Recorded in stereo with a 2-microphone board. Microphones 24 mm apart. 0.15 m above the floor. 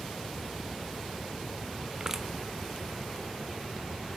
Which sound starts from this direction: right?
Crushing, at 2.0 s.